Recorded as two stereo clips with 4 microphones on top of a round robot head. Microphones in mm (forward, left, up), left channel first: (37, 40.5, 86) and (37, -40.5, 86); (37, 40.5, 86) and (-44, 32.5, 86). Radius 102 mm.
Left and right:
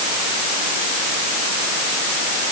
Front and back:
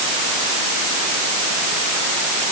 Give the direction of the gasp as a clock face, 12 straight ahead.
No gasp in this recording.